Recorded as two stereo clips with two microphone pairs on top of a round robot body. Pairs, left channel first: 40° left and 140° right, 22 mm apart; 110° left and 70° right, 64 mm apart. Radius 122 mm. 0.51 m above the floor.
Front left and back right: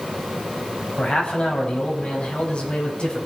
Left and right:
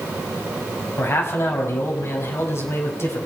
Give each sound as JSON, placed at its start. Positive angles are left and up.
{"t": 1.0, "sound": "a man speaking", "azimuth_deg": 65, "distance_m": 4.5}